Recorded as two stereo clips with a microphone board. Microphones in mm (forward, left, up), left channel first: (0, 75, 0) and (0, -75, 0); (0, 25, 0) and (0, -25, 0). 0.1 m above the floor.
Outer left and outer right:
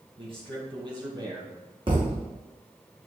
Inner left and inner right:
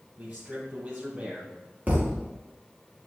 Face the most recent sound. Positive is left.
turn(degrees=-35)  # may be behind; listen again after turning